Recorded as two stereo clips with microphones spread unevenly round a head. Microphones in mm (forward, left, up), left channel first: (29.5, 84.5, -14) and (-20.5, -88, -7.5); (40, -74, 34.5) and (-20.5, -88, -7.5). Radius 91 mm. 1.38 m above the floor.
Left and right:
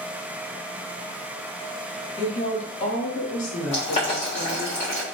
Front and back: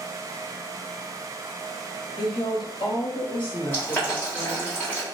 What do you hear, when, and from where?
2.2 s a woman speaking: 10° left, 0.9 m; by 4.7 s 65° left, 1.6 m
3.7 s boiling: 25° left, 1.2 m